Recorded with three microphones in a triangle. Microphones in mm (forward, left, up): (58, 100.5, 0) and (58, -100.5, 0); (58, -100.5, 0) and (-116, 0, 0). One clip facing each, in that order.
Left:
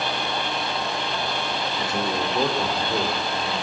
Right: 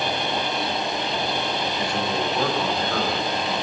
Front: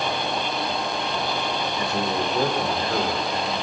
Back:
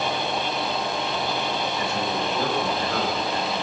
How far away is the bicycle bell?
No bicycle bell in this recording.